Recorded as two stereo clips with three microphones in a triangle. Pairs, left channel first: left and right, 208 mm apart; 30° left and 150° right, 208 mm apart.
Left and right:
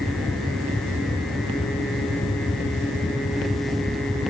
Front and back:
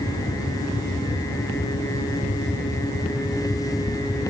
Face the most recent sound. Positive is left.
No sound to turn to.